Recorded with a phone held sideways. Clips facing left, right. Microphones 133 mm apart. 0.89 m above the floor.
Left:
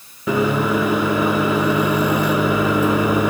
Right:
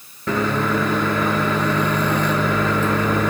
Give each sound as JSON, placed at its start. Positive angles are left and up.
{"t": 0.3, "sound": "a microwave", "side_deg": 10, "distance_m": 1.0}